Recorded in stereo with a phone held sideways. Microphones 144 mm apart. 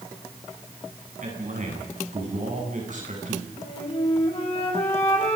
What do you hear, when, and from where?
1.2 s a man speaking: 60° right (ahead or behind), 8.5 m
3.6 s a flute: 40° left (ahead or behind), 5.5 m